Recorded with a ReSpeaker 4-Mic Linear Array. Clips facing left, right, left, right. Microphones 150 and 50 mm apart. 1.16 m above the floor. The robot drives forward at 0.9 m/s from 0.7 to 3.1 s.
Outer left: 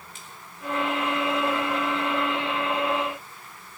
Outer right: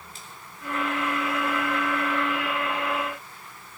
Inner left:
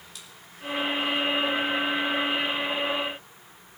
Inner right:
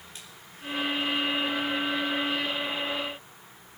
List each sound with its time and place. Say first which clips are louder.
0.1 s a splash: outer right 1 dB, even; 35° right (ahead or behind), 3.5 m